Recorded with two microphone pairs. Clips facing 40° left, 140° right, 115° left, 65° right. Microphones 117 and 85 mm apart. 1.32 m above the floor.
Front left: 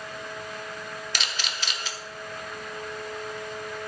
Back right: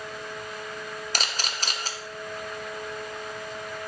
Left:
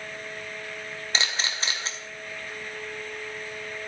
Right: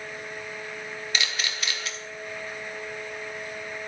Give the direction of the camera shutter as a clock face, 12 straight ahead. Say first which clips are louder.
Back right 3 dB, left 2 dB; 6 o'clock.